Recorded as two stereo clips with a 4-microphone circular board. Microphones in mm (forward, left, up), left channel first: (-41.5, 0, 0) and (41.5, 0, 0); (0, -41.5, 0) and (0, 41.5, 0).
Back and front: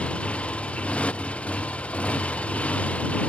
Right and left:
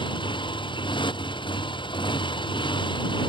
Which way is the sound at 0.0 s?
105° right.